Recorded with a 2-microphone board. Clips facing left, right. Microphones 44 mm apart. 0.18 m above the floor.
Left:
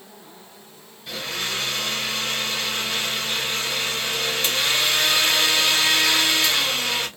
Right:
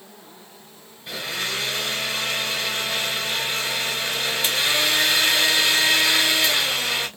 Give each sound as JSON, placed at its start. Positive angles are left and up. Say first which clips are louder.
{"t": 1.1, "sound": "a blender", "louder": "even", "side_deg": -15, "distance_m": 1.8}